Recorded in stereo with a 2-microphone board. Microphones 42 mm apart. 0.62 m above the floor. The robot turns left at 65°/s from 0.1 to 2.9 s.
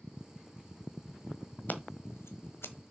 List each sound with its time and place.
1.7 s scissors: 50° left (ahead or behind), 1.3 m